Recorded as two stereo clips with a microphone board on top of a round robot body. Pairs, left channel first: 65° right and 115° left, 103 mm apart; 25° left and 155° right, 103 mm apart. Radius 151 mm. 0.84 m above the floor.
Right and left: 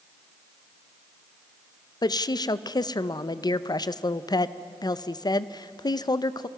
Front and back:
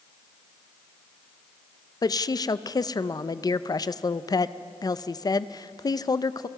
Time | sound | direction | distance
2.0 | a woman speaking | 25° right | 0.8 m